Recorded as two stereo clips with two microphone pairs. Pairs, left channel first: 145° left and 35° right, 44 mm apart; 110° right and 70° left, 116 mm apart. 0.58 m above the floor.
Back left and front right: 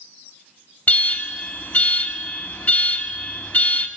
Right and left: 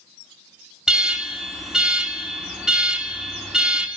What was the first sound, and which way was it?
An alarm, 150° left.